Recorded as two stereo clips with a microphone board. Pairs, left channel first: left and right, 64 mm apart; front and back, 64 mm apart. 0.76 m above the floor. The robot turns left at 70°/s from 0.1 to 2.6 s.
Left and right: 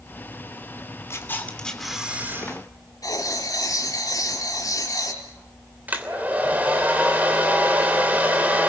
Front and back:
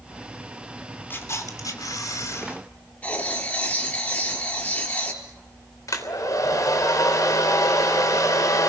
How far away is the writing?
About 4.5 m.